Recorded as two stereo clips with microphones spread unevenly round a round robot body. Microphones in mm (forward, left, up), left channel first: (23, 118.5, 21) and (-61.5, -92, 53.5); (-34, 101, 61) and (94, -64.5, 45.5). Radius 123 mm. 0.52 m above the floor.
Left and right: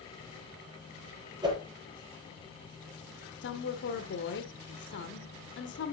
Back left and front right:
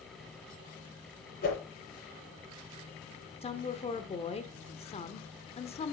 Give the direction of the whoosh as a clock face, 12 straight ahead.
6 o'clock.